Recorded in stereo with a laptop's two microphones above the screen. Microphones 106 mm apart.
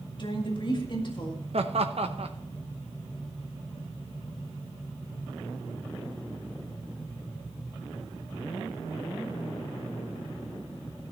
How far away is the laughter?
About 0.7 m.